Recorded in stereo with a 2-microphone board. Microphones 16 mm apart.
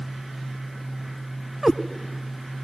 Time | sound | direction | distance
1.6 | a cat meowing | 25° right (ahead or behind) | 1.0 m